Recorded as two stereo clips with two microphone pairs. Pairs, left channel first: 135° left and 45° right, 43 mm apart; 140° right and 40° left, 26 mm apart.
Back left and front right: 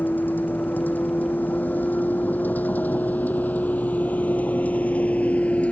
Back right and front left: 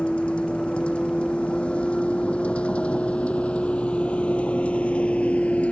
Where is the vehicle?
Straight behind; by 5.7 s 165° right.